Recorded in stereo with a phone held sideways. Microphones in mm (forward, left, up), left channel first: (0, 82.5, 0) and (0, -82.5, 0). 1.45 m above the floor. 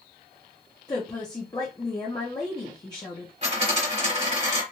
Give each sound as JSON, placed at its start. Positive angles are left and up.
{"t": 0.9, "sound": "a woman speaking", "side_deg": 25, "distance_m": 0.8}
{"t": 3.4, "sound": "a dropped coin", "side_deg": -40, "distance_m": 1.7}